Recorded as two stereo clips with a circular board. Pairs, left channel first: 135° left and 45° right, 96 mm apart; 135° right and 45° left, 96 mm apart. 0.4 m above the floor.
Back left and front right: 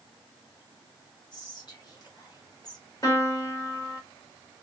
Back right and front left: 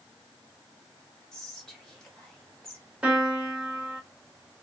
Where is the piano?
115° left, 1.1 m.